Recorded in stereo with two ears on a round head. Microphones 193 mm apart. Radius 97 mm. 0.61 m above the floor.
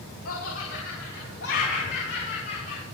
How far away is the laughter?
About 3 m.